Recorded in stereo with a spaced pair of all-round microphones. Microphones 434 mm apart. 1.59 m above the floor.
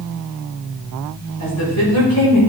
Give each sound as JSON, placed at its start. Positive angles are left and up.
{"t": 1.4, "sound": "a woman speaking", "side_deg": 40, "distance_m": 6.0}